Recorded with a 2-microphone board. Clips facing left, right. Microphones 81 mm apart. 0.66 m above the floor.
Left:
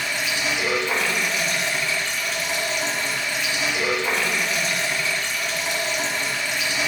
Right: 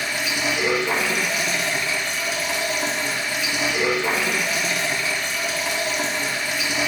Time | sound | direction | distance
0.0 | running water | 5° right (ahead or behind) | 2 m